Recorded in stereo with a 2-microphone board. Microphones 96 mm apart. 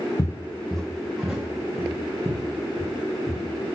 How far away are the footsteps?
About 0.5 m.